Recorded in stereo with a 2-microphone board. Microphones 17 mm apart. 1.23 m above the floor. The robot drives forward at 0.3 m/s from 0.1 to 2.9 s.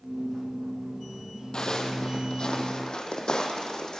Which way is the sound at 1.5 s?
45° left (ahead or behind).